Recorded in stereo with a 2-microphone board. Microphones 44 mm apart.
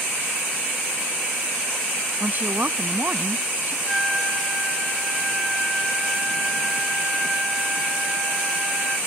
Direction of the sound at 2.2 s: 45° right (ahead or behind).